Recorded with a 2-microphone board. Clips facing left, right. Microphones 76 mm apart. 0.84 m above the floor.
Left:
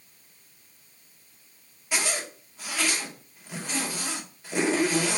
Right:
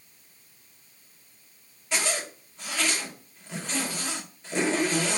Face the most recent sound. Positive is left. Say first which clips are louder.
# even
turn(degrees=10)  # may be behind; listen again after turning